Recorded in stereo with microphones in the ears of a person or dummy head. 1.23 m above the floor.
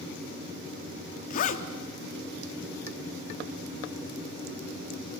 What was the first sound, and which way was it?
A zipper, 45° left (ahead or behind).